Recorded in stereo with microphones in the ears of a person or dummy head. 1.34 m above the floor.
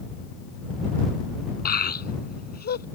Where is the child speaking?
50° left (ahead or behind).